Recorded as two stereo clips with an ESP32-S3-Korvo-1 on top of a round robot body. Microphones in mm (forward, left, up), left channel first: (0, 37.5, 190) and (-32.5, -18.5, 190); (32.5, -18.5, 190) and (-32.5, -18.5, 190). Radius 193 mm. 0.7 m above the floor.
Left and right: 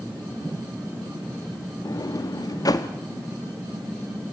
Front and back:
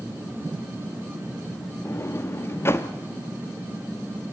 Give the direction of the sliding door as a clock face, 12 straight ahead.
10 o'clock.